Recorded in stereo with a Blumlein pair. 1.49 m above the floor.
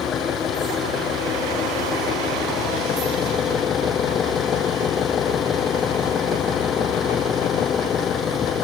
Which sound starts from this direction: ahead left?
An engine running, at 0.0 s.